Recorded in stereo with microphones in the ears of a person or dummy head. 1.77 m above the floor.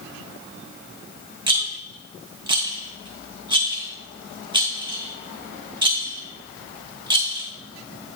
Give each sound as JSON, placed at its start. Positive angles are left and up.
{"t": 1.5, "sound": "a rattle", "side_deg": -20, "distance_m": 1.0}